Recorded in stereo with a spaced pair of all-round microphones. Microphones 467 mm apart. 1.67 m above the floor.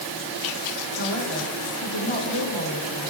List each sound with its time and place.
1.0 s a man speaking: 75° left (ahead or behind), 2 m